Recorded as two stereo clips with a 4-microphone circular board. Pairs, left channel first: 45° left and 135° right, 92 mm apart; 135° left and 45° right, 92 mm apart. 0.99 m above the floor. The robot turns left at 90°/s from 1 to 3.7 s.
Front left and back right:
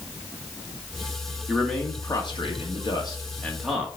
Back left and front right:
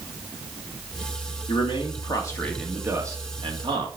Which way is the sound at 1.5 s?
150° left.